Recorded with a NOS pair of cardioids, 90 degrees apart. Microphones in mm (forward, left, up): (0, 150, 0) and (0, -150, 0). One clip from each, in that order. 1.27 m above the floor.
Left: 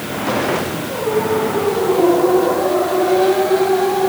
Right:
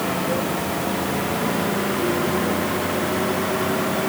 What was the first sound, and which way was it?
Only background noise.